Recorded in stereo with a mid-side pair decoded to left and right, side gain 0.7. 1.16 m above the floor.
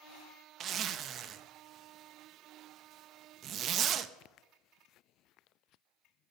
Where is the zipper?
45° right, 0.8 m.